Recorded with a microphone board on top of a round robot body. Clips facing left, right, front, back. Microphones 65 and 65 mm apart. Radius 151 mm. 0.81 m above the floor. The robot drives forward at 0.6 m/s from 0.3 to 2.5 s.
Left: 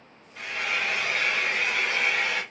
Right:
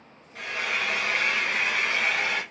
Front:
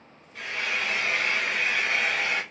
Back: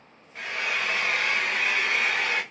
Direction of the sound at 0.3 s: 120° right.